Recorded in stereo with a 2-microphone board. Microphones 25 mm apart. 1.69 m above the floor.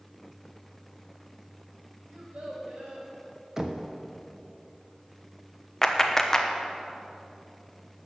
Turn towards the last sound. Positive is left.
turn(degrees=15)  # may be behind; listen again after turning